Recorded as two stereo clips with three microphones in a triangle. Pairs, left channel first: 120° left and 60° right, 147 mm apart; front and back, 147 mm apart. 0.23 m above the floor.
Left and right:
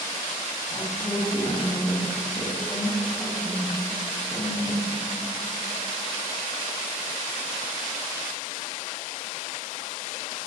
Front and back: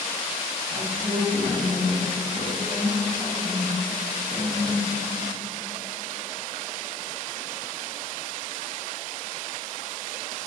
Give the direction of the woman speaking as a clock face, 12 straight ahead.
6 o'clock.